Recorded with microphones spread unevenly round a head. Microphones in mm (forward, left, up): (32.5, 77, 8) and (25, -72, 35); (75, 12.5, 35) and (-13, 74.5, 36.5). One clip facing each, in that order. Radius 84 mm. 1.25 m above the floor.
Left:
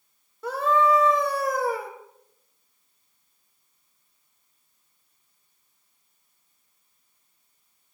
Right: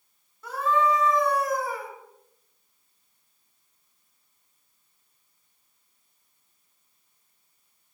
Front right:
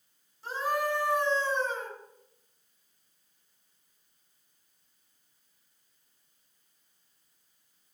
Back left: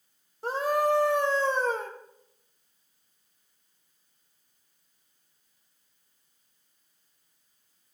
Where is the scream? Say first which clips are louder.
Left 3 dB, back left 5 dB; 115° left, 2.0 m.